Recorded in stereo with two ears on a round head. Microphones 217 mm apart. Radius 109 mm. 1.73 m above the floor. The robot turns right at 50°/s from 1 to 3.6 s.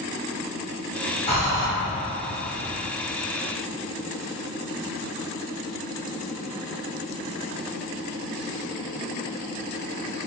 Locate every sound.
1.3 s breathing: 25° left (ahead or behind), 0.8 m; by 1.7 s 35° left (ahead or behind), 0.8 m